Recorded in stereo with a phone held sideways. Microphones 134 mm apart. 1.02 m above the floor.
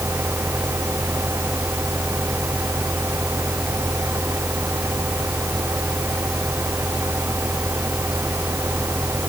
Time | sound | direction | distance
0.0 | a fan | 15° right (ahead or behind) | ?